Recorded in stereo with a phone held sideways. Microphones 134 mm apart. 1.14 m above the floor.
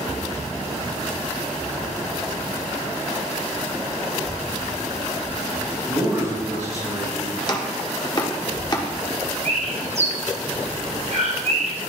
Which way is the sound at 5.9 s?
35° right (ahead or behind).